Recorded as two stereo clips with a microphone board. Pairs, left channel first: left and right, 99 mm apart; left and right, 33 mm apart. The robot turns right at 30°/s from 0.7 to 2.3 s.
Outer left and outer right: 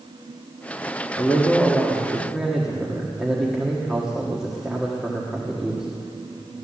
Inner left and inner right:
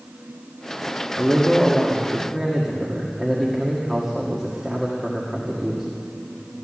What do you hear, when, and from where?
1.2 s a man speaking: 155° left, 1.6 m; by 5.9 s 175° right, 1.6 m